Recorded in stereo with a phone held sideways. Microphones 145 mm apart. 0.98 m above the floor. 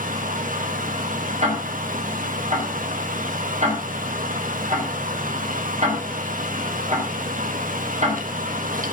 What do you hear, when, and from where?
0.0 s a fan: 70° right (ahead or behind), 1.2 m
1.4 s ticking: 50° right (ahead or behind), 3.5 m